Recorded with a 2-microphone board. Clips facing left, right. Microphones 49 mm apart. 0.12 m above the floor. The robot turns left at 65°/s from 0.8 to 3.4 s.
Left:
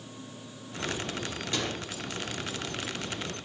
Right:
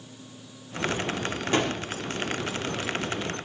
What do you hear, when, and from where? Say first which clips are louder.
1.5 s a gunshot: right 8 dB; 45° right (ahead or behind), 4.5 m; by 1.8 s 55° right (ahead or behind), 4.5 m